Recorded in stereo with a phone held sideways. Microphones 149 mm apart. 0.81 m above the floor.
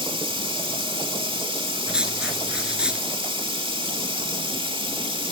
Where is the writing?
5° right (ahead or behind), 2 m.